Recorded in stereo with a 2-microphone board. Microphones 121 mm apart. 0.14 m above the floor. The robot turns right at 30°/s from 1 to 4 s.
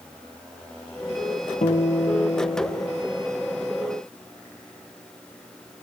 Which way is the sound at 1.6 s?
75° left.